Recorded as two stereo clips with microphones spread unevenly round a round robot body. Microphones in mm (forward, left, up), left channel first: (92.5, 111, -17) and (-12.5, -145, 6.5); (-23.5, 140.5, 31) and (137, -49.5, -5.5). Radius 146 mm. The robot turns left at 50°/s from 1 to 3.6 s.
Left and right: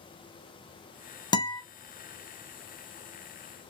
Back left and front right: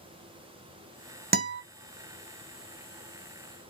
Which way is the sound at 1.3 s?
5° right.